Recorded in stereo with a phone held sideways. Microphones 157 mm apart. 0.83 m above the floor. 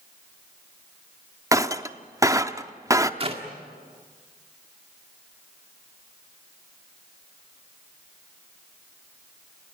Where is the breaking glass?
20° right (ahead or behind), 0.7 m.